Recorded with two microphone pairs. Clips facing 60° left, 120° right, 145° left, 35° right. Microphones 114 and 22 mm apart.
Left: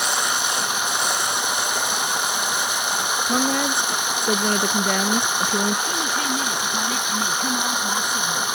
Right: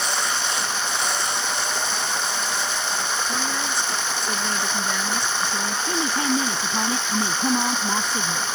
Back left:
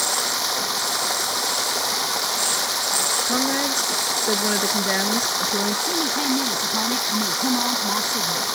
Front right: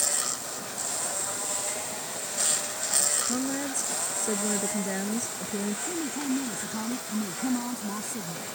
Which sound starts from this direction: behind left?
Running water, at 0.0 s.